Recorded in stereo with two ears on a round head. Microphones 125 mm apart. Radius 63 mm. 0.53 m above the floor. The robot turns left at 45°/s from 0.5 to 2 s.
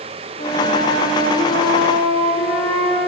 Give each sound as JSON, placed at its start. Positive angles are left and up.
{"t": 0.4, "sound": "a flute", "azimuth_deg": 135, "distance_m": 0.7}